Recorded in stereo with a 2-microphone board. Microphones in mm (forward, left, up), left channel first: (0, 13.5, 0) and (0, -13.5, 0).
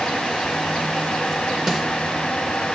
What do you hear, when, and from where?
1.7 s a snare drum: 10° right (ahead or behind), 1.1 m